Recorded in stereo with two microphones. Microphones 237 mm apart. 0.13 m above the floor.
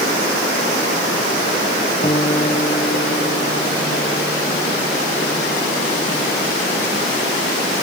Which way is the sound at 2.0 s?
25° left (ahead or behind).